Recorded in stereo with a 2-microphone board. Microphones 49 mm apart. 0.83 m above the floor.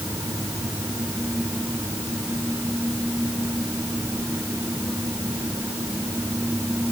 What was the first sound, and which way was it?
Only background noise.